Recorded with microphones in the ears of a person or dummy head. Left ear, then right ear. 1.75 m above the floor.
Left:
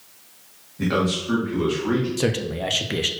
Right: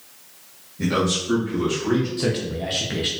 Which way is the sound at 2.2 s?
30° left (ahead or behind).